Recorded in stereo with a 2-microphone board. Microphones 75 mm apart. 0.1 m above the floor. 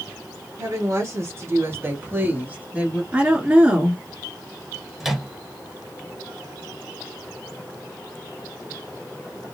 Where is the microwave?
5° right (ahead or behind), 1.3 m.